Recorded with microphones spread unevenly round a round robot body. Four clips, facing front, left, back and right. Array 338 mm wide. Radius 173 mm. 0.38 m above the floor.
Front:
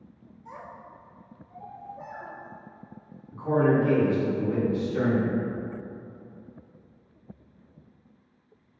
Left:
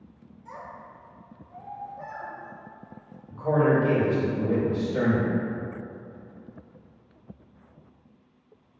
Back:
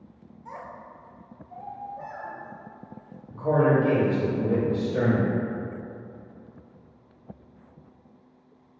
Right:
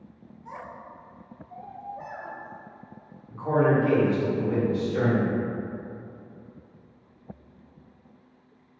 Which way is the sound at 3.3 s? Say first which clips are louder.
Even, back 1 dB; 160° left.